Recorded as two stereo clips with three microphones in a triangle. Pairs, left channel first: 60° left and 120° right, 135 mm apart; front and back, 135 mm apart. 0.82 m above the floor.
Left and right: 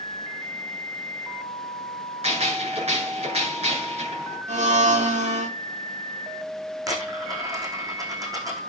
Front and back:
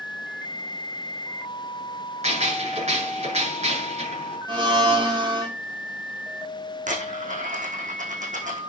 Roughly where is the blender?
Behind right.